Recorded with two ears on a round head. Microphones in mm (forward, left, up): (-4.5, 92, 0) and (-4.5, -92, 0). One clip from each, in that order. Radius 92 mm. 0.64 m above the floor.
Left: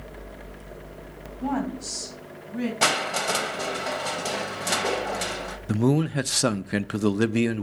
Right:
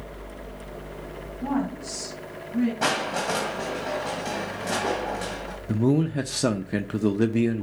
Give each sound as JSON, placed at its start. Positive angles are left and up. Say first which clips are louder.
{"t": 1.4, "sound": "a woman speaking", "louder": "even", "side_deg": 80, "distance_m": 3.5}
{"t": 2.8, "sound": "crushing", "louder": "left 4 dB", "side_deg": 65, "distance_m": 1.8}
{"t": 5.7, "sound": "a man speaking", "louder": "even", "side_deg": 35, "distance_m": 0.6}